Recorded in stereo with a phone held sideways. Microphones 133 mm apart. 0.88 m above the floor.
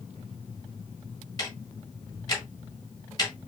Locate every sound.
1.4 s ticking: 30° left (ahead or behind), 3 m